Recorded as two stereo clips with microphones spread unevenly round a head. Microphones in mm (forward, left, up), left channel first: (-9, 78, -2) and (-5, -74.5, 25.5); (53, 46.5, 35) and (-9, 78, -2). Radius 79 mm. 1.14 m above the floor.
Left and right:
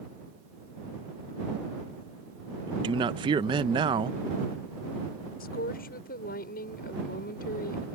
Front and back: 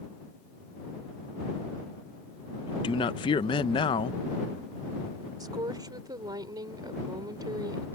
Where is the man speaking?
25° right.